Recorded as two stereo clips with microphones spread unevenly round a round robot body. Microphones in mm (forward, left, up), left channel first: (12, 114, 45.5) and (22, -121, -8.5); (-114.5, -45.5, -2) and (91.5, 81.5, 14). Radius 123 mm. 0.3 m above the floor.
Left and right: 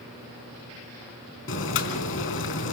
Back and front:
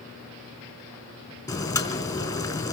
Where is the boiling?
135° left, 4 m.